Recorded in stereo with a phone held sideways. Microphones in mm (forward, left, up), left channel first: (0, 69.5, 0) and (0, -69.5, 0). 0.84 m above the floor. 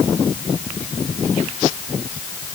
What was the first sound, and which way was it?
Only background noise.